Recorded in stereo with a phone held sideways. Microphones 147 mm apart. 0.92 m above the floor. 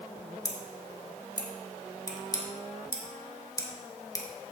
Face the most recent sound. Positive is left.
turn(degrees=25)  # may be behind; listen again after turning